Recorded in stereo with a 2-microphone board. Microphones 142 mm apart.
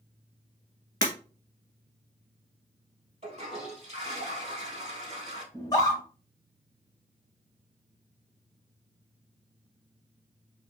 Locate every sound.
1.0 s breaking glass: 30° left (ahead or behind), 1.2 m
3.2 s a toilet flushing: 50° right (ahead or behind), 2 m
5.5 s a scream: 25° left (ahead or behind), 1.0 m